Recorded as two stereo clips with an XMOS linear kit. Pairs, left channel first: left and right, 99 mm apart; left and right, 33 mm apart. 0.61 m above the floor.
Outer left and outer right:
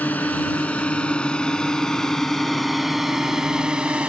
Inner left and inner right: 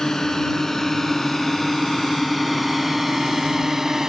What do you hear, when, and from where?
0.0 s a drone: 15° left (ahead or behind); by 4.1 s 10° right (ahead or behind)